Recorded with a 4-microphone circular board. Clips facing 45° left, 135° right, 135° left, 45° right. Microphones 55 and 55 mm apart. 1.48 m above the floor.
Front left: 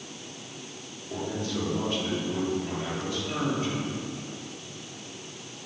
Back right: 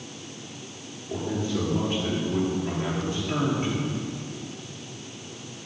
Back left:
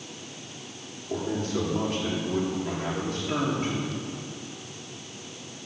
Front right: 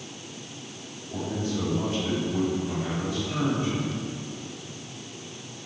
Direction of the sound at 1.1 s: 150° left.